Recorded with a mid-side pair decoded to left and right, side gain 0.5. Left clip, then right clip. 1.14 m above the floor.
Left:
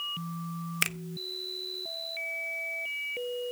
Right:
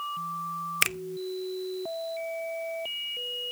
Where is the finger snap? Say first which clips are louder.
Right 3 dB; 20° right, 0.6 m.